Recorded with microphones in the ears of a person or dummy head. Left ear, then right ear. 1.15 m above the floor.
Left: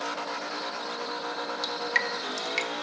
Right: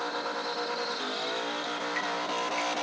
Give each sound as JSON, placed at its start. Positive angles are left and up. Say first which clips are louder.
{"t": 1.6, "sound": "dripping", "louder": "left 4 dB", "side_deg": 70, "distance_m": 0.9}